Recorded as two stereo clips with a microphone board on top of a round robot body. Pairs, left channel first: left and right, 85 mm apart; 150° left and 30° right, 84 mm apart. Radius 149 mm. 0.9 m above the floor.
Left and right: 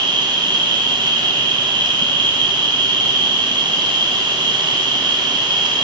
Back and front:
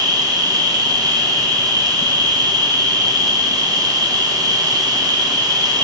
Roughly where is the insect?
Ahead right.